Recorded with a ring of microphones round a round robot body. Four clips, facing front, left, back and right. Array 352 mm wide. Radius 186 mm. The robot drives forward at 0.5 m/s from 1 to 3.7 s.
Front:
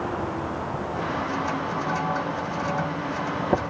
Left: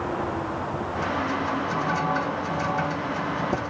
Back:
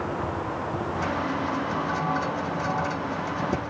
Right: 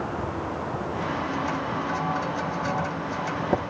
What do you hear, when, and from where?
Only background noise.